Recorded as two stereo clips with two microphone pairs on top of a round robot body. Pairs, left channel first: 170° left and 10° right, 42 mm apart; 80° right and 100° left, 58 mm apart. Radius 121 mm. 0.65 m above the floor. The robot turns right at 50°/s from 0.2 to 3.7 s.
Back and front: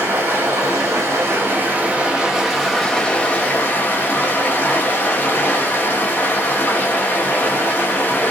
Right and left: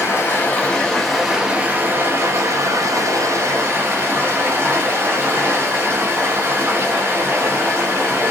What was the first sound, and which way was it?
Running water, 35° right.